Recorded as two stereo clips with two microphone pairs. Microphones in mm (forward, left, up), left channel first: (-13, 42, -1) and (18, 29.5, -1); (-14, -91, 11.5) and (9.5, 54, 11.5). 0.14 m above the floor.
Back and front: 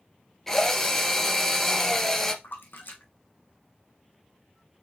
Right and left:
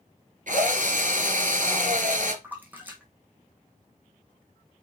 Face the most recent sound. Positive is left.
turn(degrees=160)